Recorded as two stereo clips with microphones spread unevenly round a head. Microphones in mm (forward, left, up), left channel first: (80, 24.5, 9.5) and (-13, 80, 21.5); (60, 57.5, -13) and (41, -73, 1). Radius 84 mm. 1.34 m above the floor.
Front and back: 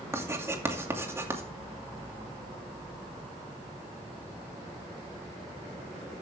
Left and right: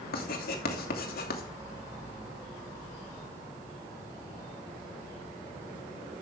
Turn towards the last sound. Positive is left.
turn(degrees=80)